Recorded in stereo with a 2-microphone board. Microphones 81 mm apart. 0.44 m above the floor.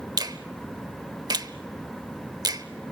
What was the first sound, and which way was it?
A finger snap, 55° right (ahead or behind).